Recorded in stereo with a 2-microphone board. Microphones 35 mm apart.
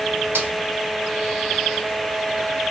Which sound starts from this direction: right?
A snare drum, at 0.3 s.